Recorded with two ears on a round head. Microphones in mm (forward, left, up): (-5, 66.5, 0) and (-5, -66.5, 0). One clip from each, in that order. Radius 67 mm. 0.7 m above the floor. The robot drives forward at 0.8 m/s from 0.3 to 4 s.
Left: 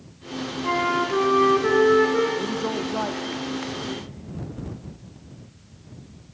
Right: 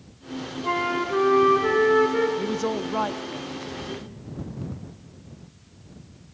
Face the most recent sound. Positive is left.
turn(degrees=-15)  # may be behind; listen again after turning